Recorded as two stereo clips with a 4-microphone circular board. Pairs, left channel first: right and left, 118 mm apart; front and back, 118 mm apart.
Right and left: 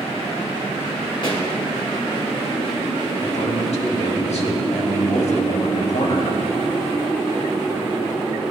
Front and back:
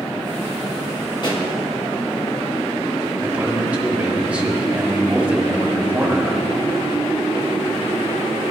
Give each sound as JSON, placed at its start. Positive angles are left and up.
{"t": 1.2, "sound": "a pop", "azimuth_deg": -45, "distance_m": 1.7}
{"t": 3.2, "sound": "a man speaking", "azimuth_deg": -100, "distance_m": 1.4}